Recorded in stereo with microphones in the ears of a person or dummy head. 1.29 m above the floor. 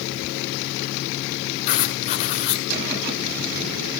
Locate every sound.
1.7 s writing: 40° left (ahead or behind), 1.8 m